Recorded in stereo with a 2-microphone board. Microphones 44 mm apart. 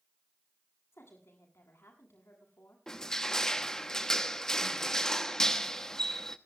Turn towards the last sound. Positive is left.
turn(degrees=15)  # may be behind; listen again after turning